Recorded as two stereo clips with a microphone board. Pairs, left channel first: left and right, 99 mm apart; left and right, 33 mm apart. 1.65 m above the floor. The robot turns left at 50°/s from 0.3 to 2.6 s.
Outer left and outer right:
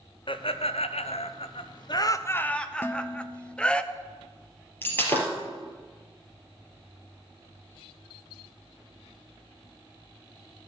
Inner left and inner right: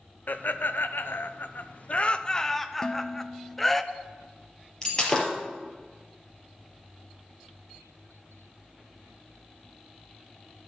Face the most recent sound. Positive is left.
turn(degrees=20)  # may be behind; listen again after turning